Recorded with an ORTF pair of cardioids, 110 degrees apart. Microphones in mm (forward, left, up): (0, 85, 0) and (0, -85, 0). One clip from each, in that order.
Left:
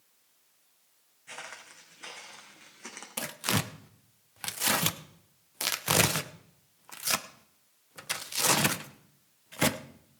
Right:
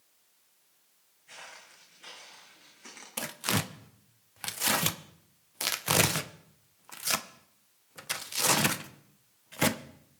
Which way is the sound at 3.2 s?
Straight ahead.